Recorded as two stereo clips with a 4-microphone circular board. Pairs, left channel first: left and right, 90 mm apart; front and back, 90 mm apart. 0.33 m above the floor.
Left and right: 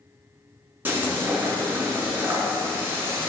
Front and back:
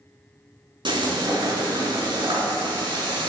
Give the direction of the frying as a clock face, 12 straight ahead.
5 o'clock.